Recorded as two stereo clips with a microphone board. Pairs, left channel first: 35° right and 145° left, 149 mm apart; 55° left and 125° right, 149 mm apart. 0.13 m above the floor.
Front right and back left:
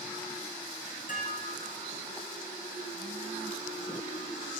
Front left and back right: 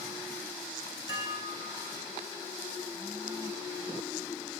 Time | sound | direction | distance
1.1 | dishes clattering | 60° right | 4 m